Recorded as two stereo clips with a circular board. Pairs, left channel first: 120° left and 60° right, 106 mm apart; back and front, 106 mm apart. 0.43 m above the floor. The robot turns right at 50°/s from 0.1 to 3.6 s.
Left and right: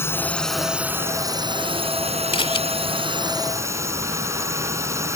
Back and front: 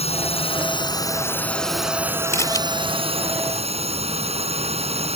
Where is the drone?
170° right; by 5.2 s 5° left.